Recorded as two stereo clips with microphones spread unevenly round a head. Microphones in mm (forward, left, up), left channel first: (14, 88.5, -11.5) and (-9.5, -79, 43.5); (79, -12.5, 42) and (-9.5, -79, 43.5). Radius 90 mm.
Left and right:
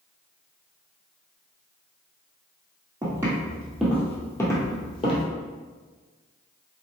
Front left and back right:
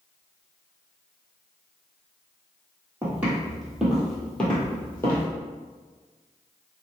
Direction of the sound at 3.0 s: 85° right.